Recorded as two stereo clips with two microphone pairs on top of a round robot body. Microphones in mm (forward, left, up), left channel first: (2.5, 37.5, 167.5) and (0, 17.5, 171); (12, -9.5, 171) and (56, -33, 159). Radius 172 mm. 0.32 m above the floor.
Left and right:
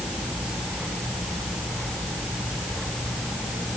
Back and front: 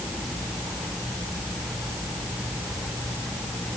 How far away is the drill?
No drill in this recording.